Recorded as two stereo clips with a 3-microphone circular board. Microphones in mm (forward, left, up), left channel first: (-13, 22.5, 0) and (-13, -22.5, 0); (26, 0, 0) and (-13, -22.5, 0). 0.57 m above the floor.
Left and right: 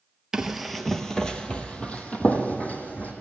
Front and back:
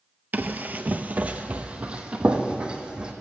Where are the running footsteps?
160° right, 0.7 m; by 3.1 s 140° left, 1.7 m.